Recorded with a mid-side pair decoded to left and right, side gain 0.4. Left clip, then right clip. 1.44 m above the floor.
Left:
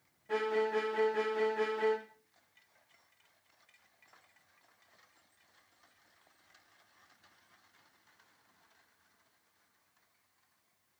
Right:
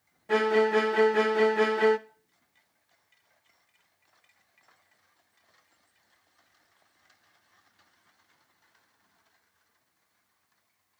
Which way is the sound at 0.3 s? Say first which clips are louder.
Right 9 dB; 70° right.